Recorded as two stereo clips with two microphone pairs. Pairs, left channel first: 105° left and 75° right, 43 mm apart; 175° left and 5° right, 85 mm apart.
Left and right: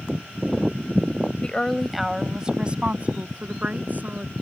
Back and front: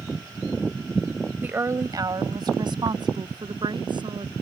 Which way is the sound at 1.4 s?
50° left.